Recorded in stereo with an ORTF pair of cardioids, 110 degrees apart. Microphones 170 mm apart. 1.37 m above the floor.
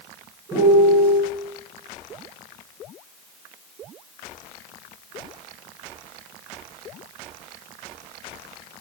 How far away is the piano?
About 1.1 m.